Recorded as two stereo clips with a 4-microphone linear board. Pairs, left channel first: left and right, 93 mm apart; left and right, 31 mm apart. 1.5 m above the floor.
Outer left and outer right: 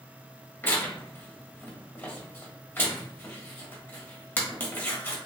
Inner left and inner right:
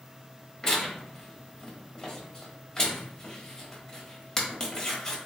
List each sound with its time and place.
0.6 s tearing paper: 25° left (ahead or behind), 1.2 m